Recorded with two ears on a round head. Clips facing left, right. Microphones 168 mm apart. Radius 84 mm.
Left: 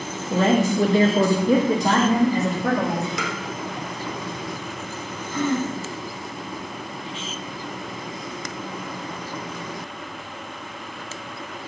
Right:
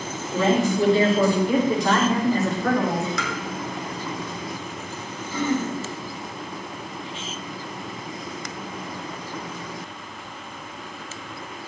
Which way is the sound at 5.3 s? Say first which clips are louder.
Left 1 dB; 10° right (ahead or behind).